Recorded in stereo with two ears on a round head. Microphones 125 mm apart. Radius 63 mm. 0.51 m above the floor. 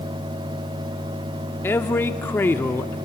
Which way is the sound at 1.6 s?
15° left (ahead or behind).